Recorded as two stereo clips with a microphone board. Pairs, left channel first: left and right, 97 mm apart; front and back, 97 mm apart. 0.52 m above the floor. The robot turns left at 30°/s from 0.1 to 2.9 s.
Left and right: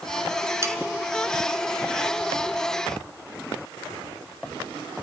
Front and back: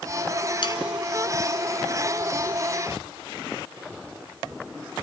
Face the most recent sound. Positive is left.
turn(degrees=-95)